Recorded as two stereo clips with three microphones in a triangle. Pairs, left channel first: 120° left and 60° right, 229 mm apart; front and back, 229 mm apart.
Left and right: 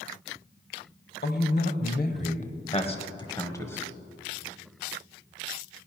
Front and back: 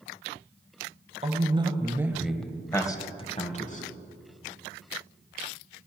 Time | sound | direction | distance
1.2 | a man speaking | 130° left | 1.4 m